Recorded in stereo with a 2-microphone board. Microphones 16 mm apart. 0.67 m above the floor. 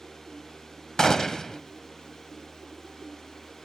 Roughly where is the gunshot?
Left.